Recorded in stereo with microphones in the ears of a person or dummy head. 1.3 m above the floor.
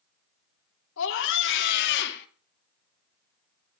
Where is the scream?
75° left (ahead or behind), 3 m; by 2.3 s 65° left (ahead or behind), 2.5 m.